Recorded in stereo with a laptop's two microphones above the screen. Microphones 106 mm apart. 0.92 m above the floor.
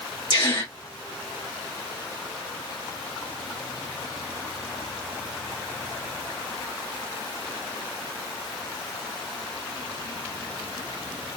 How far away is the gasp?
About 1.5 m.